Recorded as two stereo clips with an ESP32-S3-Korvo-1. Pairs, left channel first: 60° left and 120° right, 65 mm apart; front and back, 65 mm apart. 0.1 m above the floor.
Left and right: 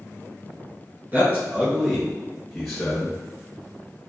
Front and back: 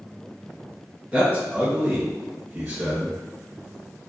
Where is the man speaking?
135° right, 1.2 m; by 3.2 s 135° left, 1.5 m.